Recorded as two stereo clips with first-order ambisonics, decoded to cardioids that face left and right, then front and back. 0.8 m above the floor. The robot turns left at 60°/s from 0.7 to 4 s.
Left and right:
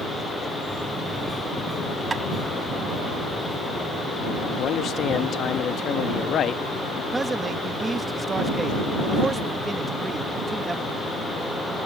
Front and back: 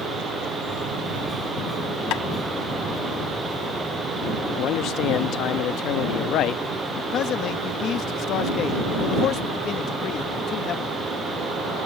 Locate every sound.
2.1 s tapping: 20° right; by 2.2 s 25° right
4.6 s a man speaking: 35° left
7.1 s a man speaking: 20° right